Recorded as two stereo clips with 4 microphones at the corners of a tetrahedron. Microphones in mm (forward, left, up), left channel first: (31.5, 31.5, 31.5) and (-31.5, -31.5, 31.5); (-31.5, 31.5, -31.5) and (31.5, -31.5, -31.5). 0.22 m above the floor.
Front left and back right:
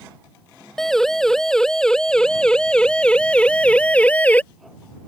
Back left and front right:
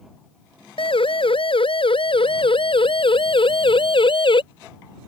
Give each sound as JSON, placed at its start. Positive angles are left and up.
{"t": 0.8, "sound": "a siren", "azimuth_deg": 130}